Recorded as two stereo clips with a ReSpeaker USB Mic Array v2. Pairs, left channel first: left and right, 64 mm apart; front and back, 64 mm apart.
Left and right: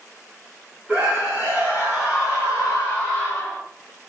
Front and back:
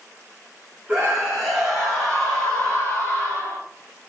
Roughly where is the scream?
Behind right.